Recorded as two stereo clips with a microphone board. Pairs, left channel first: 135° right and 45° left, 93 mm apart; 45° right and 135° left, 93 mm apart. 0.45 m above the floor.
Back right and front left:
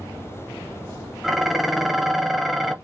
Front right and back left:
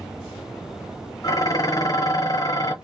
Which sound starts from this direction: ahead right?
Dishes clattering, at 1.2 s.